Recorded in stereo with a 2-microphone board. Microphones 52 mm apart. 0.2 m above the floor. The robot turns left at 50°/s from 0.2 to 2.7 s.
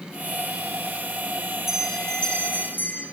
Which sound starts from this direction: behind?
A bell, at 1.7 s.